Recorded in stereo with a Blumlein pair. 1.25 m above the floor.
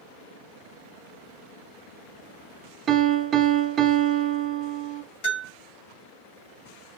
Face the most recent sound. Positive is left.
turn(degrees=40)